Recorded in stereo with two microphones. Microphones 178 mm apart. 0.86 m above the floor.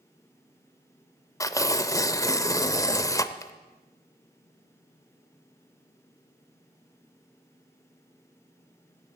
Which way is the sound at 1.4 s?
20° left (ahead or behind).